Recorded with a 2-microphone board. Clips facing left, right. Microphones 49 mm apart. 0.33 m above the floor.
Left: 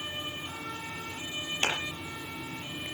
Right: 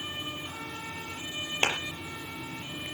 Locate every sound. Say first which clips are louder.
1.6 s a clap: right 2 dB; 25° right (ahead or behind), 6.5 m